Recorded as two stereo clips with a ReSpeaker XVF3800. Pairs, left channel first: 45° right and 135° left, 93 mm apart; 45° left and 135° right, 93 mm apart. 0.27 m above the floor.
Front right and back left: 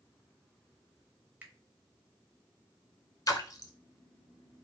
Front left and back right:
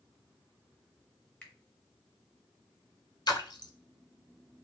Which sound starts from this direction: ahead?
A splash, at 3.3 s.